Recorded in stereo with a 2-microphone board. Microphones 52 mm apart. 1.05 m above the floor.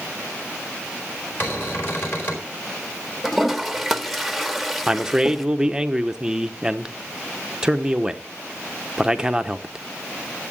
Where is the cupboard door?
40° left (ahead or behind), 4.5 m.